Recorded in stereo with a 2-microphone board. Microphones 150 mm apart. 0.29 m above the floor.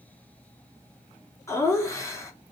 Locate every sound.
1.5 s laughter: 20° left (ahead or behind), 3 m